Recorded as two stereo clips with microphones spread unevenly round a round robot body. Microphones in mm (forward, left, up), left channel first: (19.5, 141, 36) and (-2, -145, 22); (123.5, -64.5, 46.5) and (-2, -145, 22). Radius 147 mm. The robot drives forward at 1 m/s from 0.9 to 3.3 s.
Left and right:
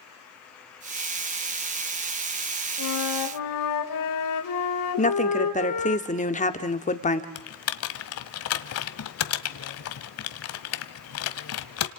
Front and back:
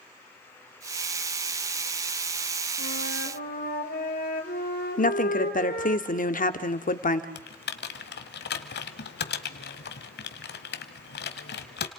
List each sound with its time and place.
2.8 s a flute: 65° left, 2.5 m; by 6.0 s 75° left, 2.5 m
5.0 s a woman speaking: 25° left, 1.7 m
7.3 s typing on a keyboard: 45° left, 1.3 m